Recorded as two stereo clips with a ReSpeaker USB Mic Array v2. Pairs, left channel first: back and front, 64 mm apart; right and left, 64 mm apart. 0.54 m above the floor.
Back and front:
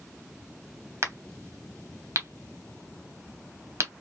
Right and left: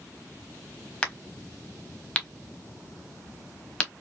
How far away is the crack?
About 0.9 m.